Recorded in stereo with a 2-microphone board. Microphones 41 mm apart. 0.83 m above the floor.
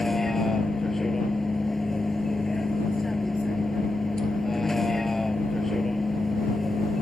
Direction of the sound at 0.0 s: 5° left (ahead or behind).